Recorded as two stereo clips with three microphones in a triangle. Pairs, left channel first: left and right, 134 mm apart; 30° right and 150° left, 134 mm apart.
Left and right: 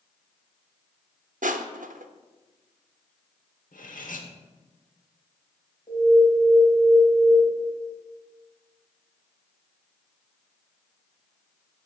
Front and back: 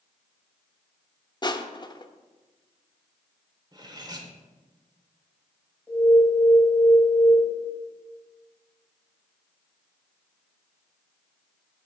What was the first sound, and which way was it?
Crushing, 90° right.